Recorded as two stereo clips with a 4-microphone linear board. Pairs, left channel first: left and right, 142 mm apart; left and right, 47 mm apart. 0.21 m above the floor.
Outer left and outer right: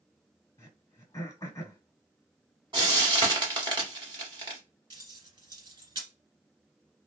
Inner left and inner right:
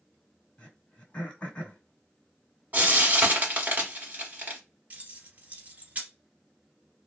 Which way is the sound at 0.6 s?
30° left (ahead or behind).